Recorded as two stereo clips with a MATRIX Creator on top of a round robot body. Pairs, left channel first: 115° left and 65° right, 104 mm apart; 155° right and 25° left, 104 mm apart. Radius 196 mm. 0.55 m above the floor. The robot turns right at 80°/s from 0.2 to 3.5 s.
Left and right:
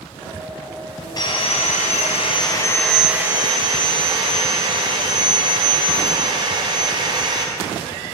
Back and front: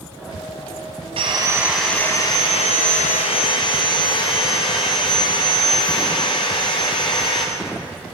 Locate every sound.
1.2 s sawing: 60° left, 0.8 m; by 7.5 s 115° right, 0.8 m